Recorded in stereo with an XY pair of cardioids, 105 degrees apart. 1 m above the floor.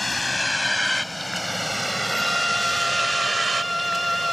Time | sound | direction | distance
0.0 | a vehicle | 10° left | ?
2.1 | a violin | 5° left | ?